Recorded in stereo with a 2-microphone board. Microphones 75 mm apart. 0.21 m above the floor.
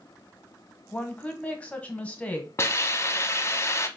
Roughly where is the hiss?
Left.